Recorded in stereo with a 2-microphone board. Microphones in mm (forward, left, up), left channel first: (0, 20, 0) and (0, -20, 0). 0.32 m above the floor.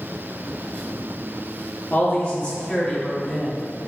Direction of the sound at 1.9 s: 30° left (ahead or behind).